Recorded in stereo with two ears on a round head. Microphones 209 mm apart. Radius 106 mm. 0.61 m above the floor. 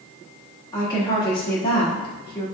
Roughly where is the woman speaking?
Centre.